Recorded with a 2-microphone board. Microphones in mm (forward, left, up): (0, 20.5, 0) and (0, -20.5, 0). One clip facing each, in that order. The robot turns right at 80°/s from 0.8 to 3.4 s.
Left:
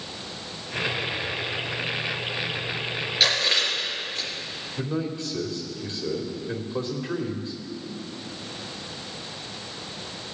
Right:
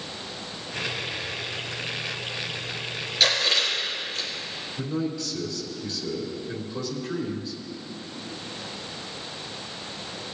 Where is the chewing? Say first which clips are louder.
Even; 5° left (ahead or behind), 4 m; by 4.3 s 20° left (ahead or behind), 4 m.